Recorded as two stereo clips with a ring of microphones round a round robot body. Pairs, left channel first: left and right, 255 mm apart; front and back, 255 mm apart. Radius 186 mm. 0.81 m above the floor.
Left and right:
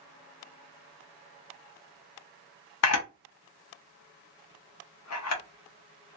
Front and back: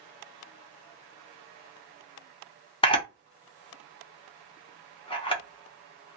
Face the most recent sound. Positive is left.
turn(degrees=70)